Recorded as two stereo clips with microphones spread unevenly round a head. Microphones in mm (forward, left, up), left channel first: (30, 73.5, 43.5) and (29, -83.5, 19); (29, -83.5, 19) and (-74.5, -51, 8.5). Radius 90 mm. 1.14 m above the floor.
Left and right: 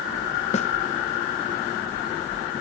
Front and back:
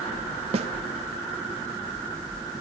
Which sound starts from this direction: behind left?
A snare drum, at 0.5 s.